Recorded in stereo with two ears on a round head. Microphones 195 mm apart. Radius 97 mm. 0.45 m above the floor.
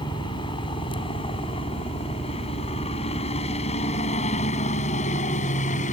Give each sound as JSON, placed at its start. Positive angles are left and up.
{"t": 0.0, "sound": "a helicopter", "side_deg": 20}